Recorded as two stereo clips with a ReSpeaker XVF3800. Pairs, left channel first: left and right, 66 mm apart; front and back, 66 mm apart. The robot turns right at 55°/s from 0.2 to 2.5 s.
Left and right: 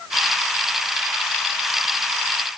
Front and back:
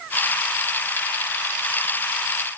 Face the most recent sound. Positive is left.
No sound to turn to.